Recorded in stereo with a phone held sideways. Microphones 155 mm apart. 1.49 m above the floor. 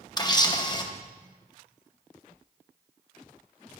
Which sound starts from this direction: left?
A camera shutter, at 0.2 s.